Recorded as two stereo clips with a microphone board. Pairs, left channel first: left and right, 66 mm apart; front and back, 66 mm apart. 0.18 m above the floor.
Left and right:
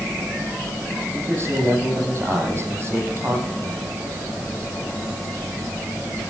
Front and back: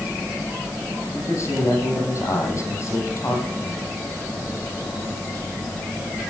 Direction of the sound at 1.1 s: 40° right.